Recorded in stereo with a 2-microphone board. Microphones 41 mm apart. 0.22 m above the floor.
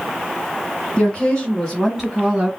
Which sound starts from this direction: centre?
A woman speaking, at 1.0 s.